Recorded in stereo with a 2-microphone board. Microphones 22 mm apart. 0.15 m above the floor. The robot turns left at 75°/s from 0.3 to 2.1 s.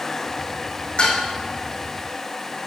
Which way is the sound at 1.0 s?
60° left (ahead or behind).